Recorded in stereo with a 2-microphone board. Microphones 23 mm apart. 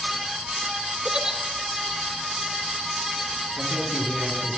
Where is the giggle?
35° right (ahead or behind), 2.5 m.